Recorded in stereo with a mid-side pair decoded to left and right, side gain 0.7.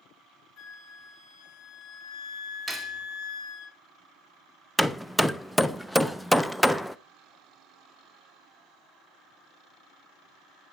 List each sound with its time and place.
0.6 s a flute: 45° left, 3.5 m
2.7 s cutlery clinking: straight ahead, 2.0 m
4.8 s hammering: 5° left, 0.6 m